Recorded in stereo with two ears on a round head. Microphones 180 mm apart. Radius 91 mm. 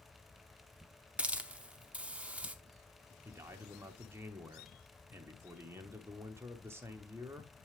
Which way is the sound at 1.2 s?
5° right (ahead or behind).